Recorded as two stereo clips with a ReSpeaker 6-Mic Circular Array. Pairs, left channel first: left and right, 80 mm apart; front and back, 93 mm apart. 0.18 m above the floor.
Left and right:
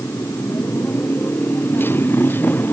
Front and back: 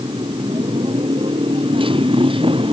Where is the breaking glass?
I don't hear breaking glass.